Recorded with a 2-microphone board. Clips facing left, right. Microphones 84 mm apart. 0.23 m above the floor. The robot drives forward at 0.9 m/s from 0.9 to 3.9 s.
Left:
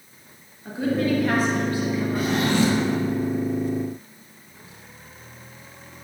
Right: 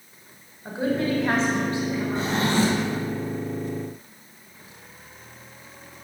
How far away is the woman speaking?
About 1.0 m.